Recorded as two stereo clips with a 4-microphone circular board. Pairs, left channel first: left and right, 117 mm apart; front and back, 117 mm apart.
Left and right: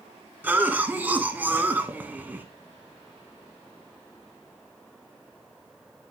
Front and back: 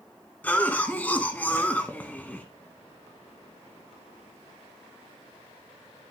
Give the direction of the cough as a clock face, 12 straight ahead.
2 o'clock.